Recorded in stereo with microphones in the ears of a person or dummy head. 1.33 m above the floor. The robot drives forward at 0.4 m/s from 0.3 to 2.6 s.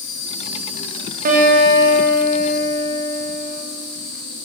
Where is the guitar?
40° right (ahead or behind), 1.1 m; by 3.6 s 25° right (ahead or behind), 1.5 m.